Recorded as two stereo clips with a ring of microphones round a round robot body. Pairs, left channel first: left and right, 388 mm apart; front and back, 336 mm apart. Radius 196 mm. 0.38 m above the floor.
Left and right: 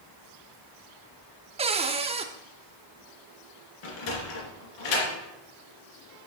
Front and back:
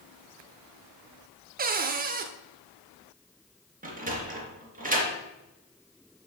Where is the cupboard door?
150° right, 0.7 m.